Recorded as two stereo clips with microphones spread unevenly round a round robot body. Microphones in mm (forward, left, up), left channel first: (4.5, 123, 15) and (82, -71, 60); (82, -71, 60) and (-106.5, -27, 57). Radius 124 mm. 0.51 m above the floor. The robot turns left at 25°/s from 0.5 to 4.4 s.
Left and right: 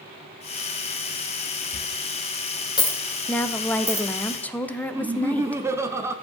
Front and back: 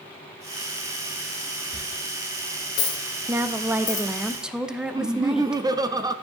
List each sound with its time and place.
1.7 s a dropped coin: 65° left, 3 m; by 4.1 s 10° left, 3 m
3.3 s a woman speaking: 120° left, 0.6 m; by 5.6 s 90° left, 0.6 m
4.9 s laughter: 160° right, 0.7 m